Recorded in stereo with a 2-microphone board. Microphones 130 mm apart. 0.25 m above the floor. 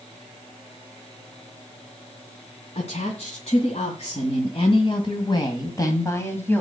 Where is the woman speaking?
60° left (ahead or behind), 2.5 m; by 6.6 s 15° left (ahead or behind), 1.7 m.